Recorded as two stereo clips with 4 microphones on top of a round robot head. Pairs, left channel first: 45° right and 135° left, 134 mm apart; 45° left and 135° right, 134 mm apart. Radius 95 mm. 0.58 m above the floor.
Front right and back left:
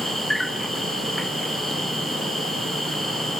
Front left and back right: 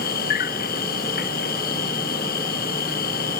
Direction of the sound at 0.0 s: 45° left.